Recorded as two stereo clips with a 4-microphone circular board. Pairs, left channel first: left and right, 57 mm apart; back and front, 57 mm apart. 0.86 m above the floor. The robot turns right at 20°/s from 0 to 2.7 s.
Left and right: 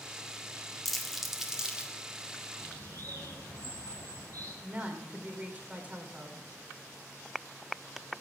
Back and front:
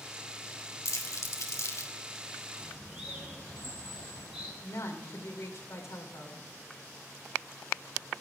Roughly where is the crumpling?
Behind.